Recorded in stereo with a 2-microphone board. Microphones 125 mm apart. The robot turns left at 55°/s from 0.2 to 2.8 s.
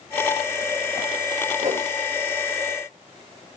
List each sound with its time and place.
1.6 s a whoosh: 70° right (ahead or behind), 3.5 m; by 1.9 s 55° right (ahead or behind), 3.5 m